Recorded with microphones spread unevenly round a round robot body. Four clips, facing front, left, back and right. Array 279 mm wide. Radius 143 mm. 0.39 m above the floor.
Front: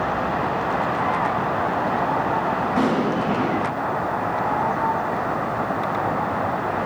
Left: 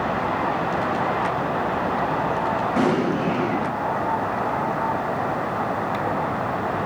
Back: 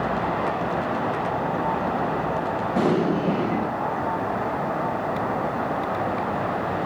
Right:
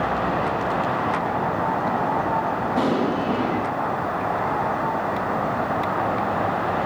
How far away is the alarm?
No alarm in this recording.